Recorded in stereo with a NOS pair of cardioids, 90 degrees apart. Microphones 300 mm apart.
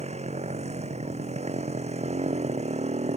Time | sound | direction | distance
0.0 | a motorcycle | 20° right | ?